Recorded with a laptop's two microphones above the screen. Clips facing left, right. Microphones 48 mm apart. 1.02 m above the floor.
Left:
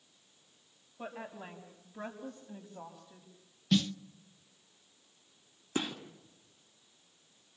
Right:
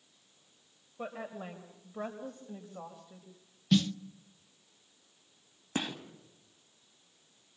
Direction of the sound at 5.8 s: 25° right (ahead or behind).